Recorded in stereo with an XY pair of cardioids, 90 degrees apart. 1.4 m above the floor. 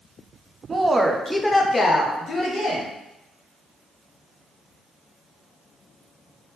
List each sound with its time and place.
0.7 s a woman speaking: 40° right, 0.7 m; by 2.9 s 65° left, 1.3 m